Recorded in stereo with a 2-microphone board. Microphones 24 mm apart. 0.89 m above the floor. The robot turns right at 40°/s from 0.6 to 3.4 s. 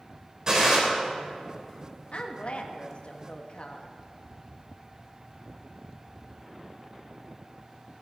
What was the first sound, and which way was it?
A gunshot, 30° right (ahead or behind).